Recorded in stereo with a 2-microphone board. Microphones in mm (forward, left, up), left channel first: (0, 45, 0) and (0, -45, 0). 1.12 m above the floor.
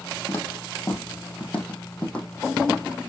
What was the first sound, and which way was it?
Footsteps, 30° left (ahead or behind).